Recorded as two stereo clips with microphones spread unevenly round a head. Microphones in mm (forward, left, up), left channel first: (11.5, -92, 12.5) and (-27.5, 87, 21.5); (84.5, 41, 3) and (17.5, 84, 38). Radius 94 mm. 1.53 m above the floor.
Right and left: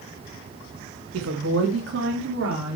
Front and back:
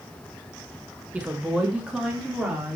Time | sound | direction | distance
1.1 | a woman speaking | 80° left | 1.7 m